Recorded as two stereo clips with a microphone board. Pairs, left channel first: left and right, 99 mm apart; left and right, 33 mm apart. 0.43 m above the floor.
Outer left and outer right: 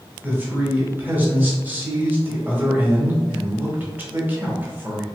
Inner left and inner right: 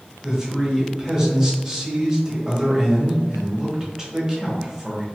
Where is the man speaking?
20° right (ahead or behind), 1.2 m.